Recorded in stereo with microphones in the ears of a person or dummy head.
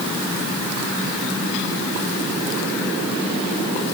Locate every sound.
Only background noise.